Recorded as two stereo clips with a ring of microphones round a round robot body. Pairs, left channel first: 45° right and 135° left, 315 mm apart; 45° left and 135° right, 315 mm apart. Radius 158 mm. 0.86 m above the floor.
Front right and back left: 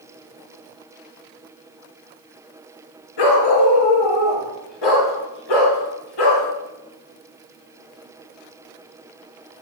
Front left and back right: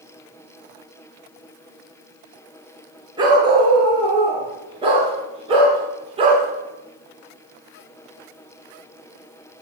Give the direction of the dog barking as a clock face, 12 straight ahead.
2 o'clock.